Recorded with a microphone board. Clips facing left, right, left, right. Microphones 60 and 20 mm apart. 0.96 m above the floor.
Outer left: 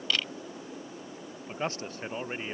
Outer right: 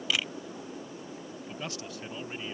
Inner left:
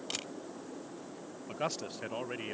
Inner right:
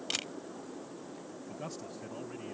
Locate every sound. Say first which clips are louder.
0.1 s a camera shutter: even, inner right 4 dB; 10° right (ahead or behind)
1.5 s a man speaking: outer left 7 dB, inner left 8 dB; 40° left (ahead or behind)